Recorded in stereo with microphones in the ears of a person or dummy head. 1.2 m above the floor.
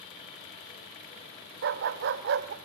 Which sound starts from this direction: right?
A dog barking, at 1.6 s.